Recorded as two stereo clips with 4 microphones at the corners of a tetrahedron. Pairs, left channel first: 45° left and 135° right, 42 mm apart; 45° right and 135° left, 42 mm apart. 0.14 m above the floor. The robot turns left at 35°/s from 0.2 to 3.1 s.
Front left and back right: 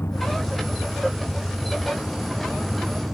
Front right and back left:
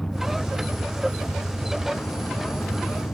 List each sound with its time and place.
0.0 s a vehicle: 35° left; by 3.1 s 65° right